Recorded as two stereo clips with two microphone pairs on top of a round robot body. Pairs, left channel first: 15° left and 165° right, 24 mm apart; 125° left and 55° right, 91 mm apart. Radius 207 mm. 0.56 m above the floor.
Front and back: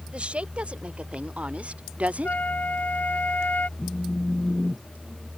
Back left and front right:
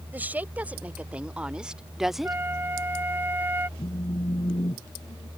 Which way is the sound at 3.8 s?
85° left.